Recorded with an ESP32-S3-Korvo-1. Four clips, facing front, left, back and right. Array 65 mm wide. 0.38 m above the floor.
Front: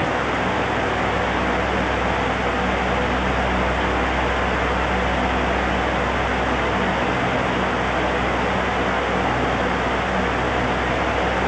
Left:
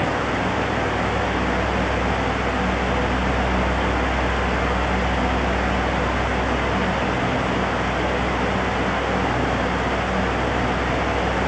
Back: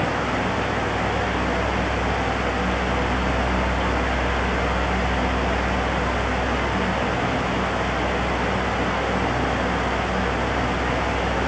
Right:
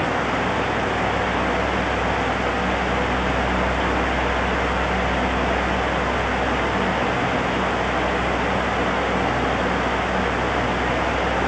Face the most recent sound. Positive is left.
No sound to turn to.